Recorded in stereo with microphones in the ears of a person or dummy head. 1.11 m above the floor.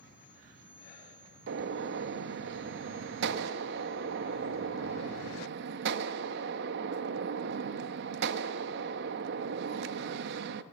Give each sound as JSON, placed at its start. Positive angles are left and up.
{"t": 1.5, "sound": "a gunshot", "side_deg": -55, "distance_m": 0.9}